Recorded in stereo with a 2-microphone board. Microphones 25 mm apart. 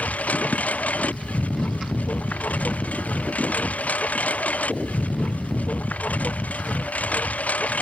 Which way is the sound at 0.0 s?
75° left (ahead or behind).